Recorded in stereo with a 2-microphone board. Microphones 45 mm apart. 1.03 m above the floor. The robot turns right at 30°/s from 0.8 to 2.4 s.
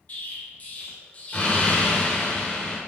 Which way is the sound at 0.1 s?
90° left.